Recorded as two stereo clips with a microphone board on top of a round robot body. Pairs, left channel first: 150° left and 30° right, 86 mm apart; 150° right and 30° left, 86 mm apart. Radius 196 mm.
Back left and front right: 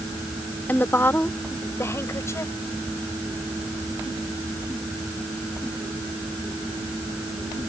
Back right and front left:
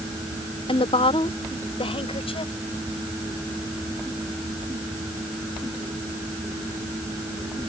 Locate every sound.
0.7 s a woman speaking: 140° right; by 2.5 s 150° right